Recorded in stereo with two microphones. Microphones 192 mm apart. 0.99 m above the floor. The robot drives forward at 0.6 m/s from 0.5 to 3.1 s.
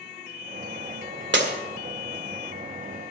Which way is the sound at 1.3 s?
80° right.